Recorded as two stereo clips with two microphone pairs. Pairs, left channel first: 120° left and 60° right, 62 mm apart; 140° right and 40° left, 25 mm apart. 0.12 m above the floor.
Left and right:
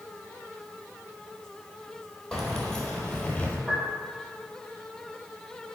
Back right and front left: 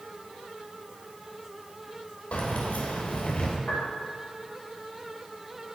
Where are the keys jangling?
155° right, 1.9 m; by 3.6 s 175° right, 1.5 m.